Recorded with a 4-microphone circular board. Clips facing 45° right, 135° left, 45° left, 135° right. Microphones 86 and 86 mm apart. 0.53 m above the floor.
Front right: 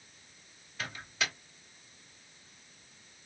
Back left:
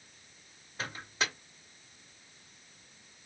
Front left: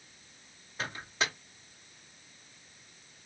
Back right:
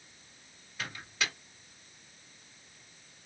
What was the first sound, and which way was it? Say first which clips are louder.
A microwave: back left 1 dB, front left 3 dB; 95° left.